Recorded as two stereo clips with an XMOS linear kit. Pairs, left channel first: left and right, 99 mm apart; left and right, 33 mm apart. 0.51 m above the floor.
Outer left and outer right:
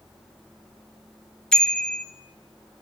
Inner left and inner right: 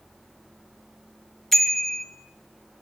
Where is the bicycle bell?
10° left (ahead or behind), 2.5 m.